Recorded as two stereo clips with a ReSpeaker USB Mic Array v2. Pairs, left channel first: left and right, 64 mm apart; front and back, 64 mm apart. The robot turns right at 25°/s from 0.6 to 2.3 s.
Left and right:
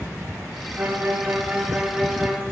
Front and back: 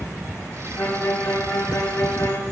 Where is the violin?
45° right, 0.8 m; by 2.4 s 10° right, 0.8 m.